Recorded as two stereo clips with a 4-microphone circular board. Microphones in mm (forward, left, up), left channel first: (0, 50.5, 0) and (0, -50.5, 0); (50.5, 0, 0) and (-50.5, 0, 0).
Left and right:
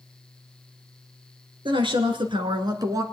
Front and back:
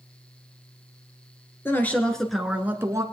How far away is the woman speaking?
About 2.5 m.